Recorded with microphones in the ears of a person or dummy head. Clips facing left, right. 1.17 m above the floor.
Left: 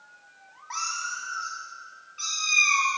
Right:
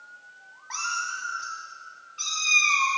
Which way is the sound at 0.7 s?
Centre (ahead or behind).